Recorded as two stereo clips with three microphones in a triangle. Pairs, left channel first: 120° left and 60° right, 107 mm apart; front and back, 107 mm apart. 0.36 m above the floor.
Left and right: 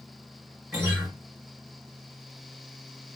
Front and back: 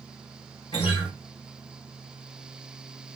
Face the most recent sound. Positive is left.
turn(degrees=30)